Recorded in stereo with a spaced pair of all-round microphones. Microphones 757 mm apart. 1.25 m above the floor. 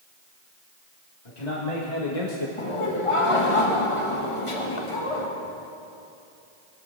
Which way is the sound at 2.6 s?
40° left (ahead or behind).